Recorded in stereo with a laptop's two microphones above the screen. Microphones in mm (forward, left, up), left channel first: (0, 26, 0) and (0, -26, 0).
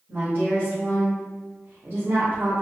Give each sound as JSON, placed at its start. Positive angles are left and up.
{"t": 0.1, "sound": "a woman speaking", "side_deg": -45, "distance_m": 1.9}